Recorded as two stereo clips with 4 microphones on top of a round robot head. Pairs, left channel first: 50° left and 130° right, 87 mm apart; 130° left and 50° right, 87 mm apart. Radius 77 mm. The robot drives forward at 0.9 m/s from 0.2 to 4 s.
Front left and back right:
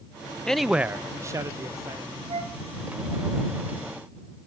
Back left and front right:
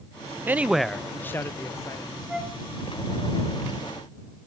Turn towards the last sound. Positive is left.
turn(degrees=-150)